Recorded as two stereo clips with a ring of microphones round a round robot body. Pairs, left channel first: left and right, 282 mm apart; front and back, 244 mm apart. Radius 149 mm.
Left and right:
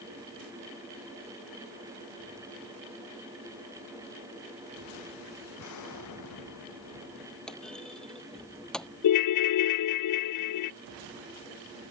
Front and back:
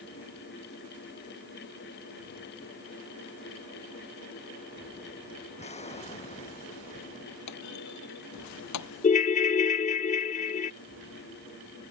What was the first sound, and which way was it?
An explosion, 65° left.